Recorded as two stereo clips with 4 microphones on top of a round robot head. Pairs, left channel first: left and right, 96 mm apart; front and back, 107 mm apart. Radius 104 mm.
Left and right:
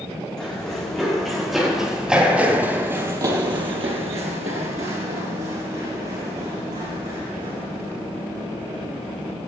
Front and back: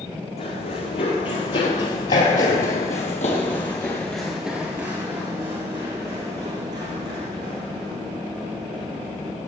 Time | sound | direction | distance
0.4 | running footsteps | 5° left | 5.5 m